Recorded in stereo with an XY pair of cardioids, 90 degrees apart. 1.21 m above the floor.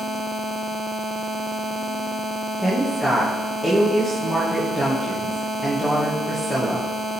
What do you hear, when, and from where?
2.6 s a woman speaking: 5° left, 1.3 m